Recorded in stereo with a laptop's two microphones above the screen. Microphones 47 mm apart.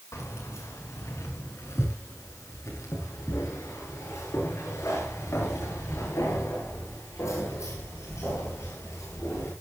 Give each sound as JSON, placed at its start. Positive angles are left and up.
{"t": 0.1, "sound": "keys jangling", "side_deg": 85, "distance_m": 6.0}